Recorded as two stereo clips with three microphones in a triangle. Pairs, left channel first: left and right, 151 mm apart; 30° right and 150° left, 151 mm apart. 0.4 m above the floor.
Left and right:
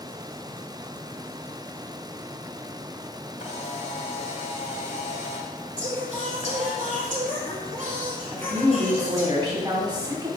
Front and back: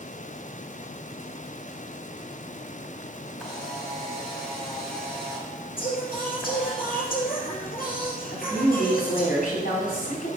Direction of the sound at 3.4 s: 60° left.